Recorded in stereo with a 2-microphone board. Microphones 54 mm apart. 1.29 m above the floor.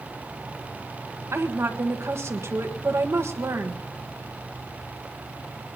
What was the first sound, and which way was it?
A woman speaking, 55° right (ahead or behind).